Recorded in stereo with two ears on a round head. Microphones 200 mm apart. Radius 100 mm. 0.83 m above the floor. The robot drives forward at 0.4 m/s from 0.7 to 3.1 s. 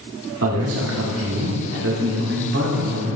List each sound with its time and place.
0.4 s a man speaking: 70° right (ahead or behind), 1.9 m; by 3.2 s 50° right (ahead or behind), 2.5 m